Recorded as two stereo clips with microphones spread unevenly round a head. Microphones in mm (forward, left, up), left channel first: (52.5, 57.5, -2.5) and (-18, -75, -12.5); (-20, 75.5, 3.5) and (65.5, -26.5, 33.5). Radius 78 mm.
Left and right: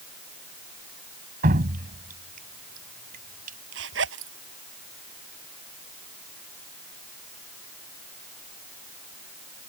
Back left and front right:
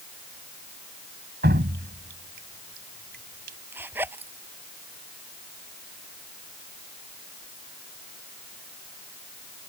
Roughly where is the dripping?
Right.